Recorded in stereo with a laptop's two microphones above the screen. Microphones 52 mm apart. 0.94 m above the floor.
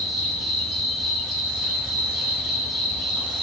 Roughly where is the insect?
Centre.